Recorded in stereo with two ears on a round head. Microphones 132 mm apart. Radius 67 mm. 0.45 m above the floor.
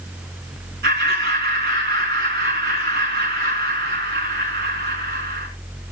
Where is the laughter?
75° right (ahead or behind), 4 m.